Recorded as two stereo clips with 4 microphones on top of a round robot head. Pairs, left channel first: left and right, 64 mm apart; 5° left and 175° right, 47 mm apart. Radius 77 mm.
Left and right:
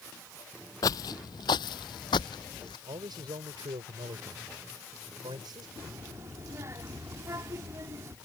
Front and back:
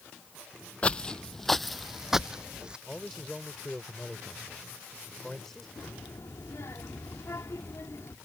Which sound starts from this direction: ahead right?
A child speaking, at 5.8 s.